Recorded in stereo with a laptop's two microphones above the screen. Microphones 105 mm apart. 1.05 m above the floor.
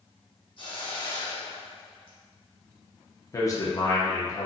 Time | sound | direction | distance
0.6 | a hiss | 50° left (ahead or behind) | 0.7 m
3.3 | a man speaking | 30° left (ahead or behind) | 0.7 m